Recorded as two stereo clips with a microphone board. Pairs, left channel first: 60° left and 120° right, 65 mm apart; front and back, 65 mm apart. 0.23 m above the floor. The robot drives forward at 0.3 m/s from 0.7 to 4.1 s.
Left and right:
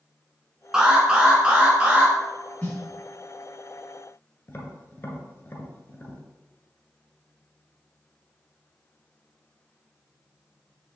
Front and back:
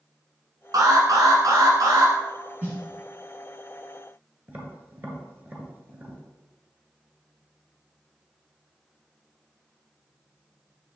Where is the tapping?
120° left, 1.5 m.